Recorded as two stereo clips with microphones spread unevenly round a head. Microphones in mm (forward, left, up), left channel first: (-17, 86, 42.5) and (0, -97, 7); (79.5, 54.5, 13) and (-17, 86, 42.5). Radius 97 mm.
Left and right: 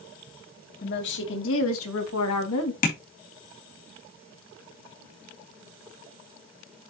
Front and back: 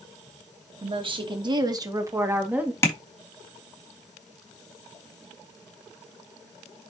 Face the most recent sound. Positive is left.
turn(degrees=50)